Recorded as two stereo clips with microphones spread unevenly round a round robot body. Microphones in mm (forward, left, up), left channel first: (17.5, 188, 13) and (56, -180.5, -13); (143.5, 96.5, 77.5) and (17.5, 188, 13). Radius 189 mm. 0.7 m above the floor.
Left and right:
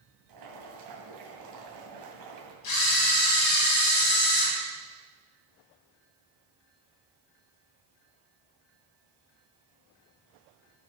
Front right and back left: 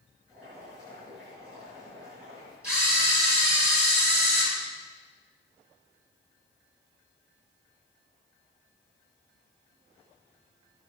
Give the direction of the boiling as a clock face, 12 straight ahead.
4 o'clock.